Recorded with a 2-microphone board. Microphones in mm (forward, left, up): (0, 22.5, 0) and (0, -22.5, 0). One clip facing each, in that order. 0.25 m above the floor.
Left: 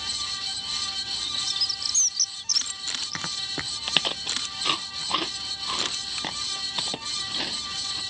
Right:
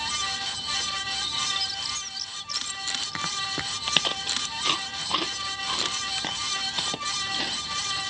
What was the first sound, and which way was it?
A bird, 15° right (ahead or behind).